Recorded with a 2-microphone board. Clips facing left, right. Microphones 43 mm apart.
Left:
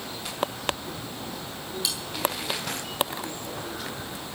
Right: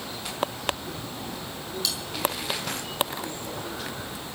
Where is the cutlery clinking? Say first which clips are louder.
Right 1 dB; 10° left (ahead or behind), 5 m.